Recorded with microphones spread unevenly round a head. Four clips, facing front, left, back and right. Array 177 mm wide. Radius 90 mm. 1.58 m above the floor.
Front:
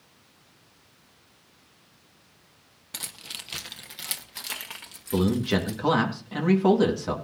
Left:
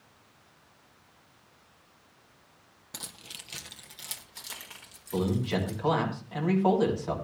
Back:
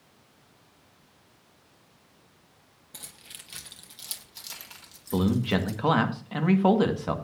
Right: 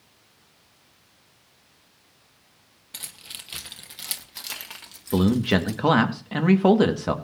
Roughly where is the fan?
No fan in this recording.